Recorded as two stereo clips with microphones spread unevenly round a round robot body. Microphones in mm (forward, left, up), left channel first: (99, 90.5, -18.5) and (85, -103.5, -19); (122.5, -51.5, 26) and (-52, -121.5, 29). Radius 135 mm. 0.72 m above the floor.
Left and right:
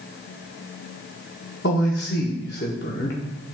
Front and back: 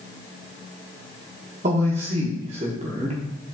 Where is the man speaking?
140° left, 1.2 m.